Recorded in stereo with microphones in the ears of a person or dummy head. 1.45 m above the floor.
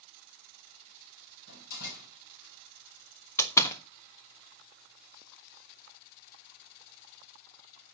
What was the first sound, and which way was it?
A door slam, 65° left (ahead or behind).